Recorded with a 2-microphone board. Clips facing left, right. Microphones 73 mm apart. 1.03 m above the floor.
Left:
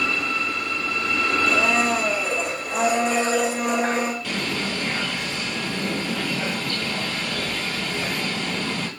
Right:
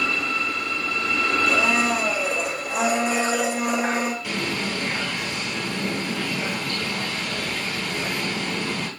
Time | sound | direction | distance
1.5 | a blender | 5° right (ahead or behind) | 0.9 m
4.2 | a bird | 10° right (ahead or behind) | 2 m